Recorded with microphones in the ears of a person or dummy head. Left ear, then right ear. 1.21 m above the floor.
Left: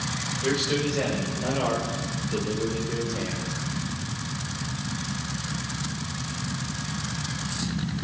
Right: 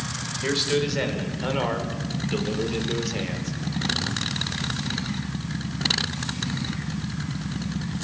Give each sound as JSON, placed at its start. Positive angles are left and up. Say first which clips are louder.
{"t": 0.4, "sound": "a man speaking", "louder": "right 2 dB", "side_deg": -35, "distance_m": 6.0}